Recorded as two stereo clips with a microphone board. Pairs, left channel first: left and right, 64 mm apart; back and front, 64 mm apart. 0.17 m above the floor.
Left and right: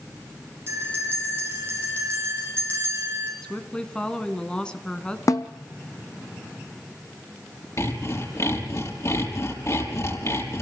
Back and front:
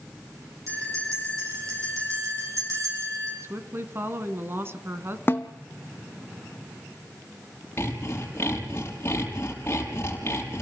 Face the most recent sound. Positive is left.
turn(degrees=130)